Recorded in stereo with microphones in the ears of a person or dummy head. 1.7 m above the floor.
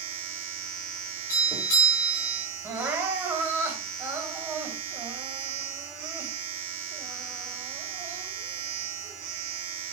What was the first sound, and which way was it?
A machine running, 65° right (ahead or behind).